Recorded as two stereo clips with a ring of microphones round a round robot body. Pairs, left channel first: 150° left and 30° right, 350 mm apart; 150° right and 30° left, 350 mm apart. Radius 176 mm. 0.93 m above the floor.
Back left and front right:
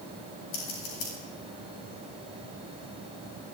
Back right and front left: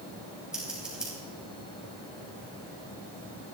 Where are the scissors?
120° left, 4 m.